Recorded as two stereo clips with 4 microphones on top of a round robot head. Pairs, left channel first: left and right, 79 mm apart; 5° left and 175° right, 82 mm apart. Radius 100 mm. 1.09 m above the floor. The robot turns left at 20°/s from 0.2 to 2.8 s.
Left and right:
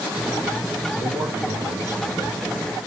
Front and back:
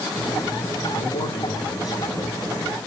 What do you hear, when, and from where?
0.9 s a man speaking: 10° right, 2 m; by 2.4 s 40° right, 2 m